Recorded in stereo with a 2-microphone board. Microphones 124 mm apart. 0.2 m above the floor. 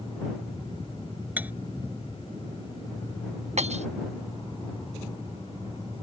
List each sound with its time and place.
1.4 s cutlery clinking: 15° right (ahead or behind)
3.6 s breaking glass: 65° right (ahead or behind)